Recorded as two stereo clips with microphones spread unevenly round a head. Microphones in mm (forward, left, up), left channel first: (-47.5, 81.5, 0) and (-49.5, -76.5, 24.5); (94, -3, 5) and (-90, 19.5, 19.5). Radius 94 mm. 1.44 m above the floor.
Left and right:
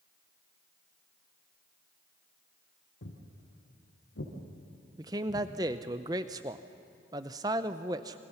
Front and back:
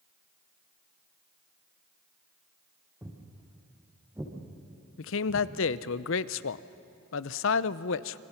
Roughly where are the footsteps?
Left.